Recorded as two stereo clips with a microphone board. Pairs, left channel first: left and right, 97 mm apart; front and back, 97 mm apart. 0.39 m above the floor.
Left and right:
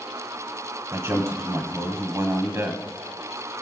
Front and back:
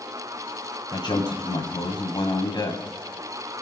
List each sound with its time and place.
0.9 s a man speaking: 35° right, 2.5 m